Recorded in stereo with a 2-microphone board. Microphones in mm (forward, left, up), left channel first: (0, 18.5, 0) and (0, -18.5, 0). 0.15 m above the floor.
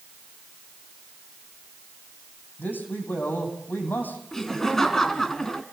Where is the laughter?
15° left (ahead or behind), 1.2 m.